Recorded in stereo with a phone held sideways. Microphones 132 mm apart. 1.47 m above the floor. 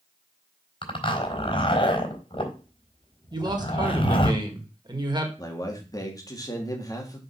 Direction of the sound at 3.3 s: 35° right (ahead or behind).